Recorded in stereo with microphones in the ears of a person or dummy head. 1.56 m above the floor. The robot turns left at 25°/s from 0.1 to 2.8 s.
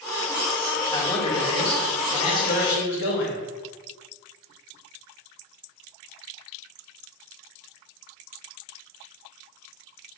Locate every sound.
0.9 s a man speaking: 160° left, 0.9 m; by 3.4 s 110° left, 0.9 m